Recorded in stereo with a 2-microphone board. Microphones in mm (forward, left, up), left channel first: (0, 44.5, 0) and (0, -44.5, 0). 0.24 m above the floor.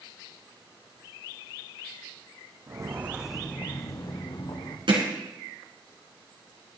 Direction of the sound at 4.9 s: 65° right (ahead or behind).